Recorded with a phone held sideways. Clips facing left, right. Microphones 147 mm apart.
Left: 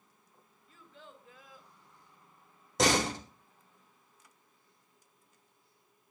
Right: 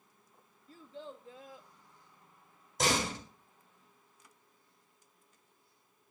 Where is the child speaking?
35° right (ahead or behind), 1.3 m; by 1.7 s 25° right (ahead or behind), 2 m.